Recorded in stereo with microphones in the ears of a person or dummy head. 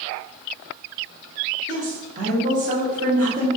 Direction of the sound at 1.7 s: 45° right (ahead or behind).